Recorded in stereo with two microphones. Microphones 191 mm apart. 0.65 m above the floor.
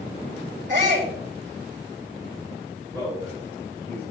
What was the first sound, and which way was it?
A shout, 65° right (ahead or behind).